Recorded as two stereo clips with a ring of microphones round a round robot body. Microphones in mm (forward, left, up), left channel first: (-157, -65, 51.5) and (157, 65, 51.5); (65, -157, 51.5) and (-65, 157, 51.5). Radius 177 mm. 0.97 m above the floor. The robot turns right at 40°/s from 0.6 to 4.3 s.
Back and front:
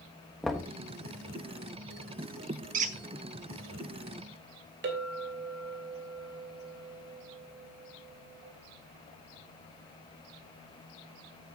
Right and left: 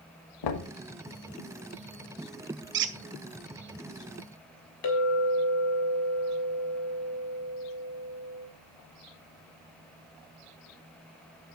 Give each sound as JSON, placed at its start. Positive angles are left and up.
{"t": 0.4, "sound": "knocking", "azimuth_deg": -70, "distance_m": 1.3}
{"t": 2.7, "sound": "a squeak", "azimuth_deg": 75, "distance_m": 0.5}
{"t": 4.8, "sound": "a clink", "azimuth_deg": -35, "distance_m": 3.0}